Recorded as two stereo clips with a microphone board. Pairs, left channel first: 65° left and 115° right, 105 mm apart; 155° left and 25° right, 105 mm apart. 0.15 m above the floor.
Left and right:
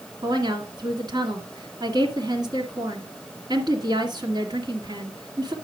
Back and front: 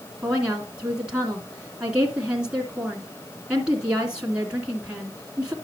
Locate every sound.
0.2 s a woman speaking: 100° right, 2 m